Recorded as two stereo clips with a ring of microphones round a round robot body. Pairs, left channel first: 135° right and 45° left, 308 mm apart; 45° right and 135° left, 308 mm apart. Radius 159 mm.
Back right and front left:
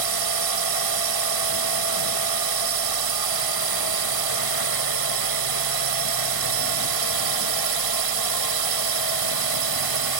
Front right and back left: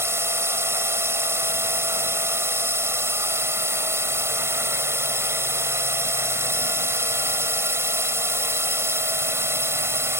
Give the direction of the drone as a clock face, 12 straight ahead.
10 o'clock.